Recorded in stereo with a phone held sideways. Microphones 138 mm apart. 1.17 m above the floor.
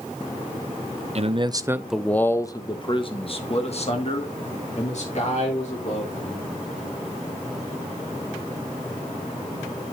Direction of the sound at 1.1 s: 50° right (ahead or behind).